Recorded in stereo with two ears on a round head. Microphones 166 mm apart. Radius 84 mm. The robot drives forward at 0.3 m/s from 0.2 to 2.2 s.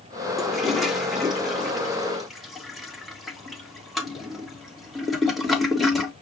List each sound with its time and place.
0.4 s a toilet flushing: centre (ahead or behind), 0.9 m